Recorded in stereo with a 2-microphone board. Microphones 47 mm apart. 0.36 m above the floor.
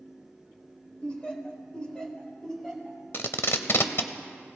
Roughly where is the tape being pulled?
Left.